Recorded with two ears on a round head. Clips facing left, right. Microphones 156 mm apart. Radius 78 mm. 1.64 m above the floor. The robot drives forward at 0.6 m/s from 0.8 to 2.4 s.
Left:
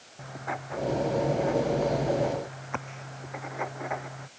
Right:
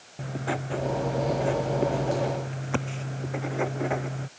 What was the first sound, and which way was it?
Writing, 35° right (ahead or behind).